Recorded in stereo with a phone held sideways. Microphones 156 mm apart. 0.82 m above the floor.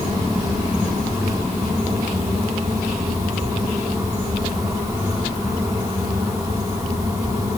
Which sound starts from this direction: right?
A fan, at 0.0 s.